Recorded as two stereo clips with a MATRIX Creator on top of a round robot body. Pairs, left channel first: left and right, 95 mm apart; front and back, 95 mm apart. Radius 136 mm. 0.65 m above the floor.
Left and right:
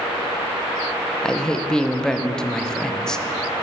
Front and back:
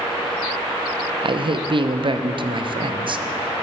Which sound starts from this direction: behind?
A man speaking, at 1.2 s.